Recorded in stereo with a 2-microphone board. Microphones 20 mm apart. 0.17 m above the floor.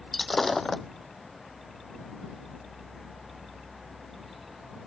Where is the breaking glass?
10° left (ahead or behind).